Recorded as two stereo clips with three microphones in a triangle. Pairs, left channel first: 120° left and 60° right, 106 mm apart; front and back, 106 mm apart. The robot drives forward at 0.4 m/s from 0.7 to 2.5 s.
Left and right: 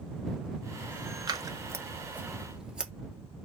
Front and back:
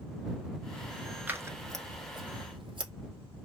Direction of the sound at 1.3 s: 110° right.